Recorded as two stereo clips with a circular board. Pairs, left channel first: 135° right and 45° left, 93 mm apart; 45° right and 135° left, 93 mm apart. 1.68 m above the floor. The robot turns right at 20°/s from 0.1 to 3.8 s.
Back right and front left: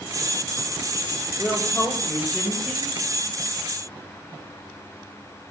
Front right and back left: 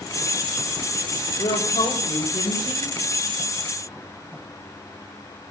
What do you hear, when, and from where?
1.4 s a woman speaking: 70° right, 8.5 m; by 3.0 s 35° right, 8.5 m